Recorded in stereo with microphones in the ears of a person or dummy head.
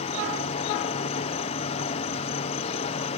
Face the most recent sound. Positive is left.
turn(degrees=35)  # may be behind; listen again after turning